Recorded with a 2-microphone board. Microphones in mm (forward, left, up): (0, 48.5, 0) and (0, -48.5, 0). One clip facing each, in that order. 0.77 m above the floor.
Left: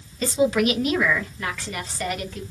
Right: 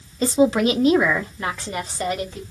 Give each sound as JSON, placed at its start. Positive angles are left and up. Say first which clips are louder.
{"t": 0.2, "sound": "a woman speaking", "louder": "right 3 dB", "side_deg": -30, "distance_m": 0.6}